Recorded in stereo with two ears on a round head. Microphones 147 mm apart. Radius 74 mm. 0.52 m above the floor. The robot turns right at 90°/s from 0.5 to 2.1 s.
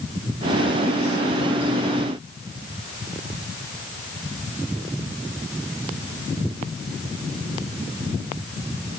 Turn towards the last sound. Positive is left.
No sound to turn to.